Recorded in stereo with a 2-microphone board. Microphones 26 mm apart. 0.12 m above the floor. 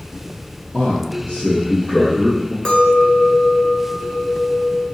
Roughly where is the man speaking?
Left.